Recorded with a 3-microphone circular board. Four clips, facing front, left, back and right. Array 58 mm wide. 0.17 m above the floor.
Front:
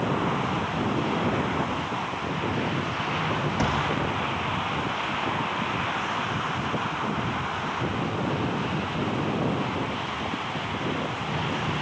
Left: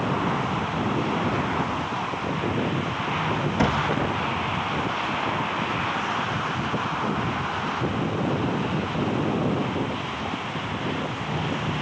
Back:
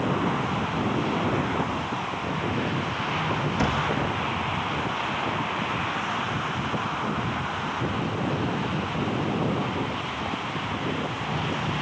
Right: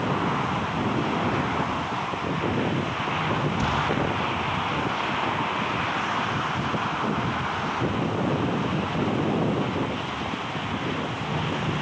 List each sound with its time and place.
3.6 s a cupboard door: 75° left, 5 m